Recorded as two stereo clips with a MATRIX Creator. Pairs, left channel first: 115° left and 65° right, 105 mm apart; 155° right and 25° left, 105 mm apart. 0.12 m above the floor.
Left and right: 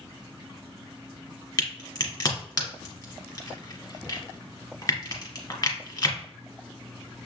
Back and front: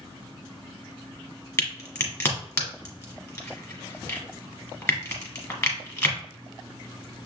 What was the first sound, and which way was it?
A crack, 150° left.